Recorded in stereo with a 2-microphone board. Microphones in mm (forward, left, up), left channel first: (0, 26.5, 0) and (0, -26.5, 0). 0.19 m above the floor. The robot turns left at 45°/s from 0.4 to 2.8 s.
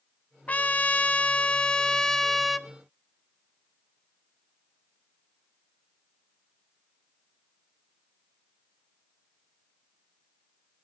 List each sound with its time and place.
0.5 s a trumpet: 25° left (ahead or behind), 0.7 m; by 2.7 s 5° right (ahead or behind), 0.7 m